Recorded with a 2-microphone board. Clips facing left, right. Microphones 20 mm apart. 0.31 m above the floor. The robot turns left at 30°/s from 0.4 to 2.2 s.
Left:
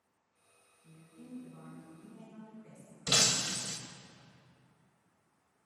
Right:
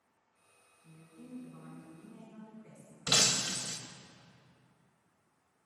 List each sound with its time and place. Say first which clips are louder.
0.8 s a woman speaking: even; 10° left, 3 m; by 3.0 s 30° right, 3 m
3.1 s breaking glass: even; 40° right (ahead or behind), 0.7 m